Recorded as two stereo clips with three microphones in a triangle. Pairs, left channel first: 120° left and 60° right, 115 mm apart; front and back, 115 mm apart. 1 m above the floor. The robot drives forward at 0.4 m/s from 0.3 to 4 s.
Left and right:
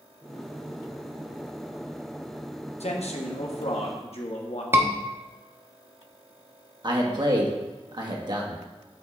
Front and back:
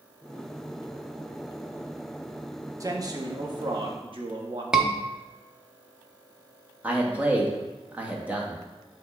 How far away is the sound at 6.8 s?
About 1.3 m.